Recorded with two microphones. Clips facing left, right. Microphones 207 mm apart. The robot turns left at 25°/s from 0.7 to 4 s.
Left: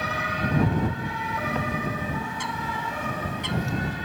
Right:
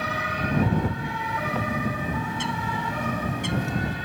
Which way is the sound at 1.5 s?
5° right.